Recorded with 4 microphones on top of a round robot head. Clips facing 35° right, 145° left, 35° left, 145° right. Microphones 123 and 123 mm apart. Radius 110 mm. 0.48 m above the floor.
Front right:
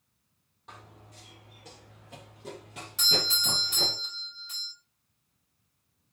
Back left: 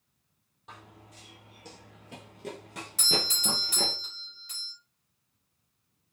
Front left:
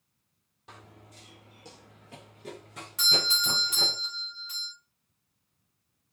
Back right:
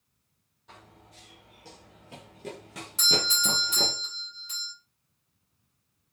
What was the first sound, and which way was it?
Running footsteps, 60° left.